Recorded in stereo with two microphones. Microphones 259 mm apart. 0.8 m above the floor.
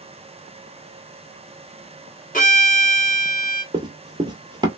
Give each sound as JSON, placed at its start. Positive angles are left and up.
{"t": 2.3, "sound": "a violin", "side_deg": 30, "distance_m": 0.9}
{"t": 3.7, "sound": "running footsteps", "side_deg": -15, "distance_m": 0.8}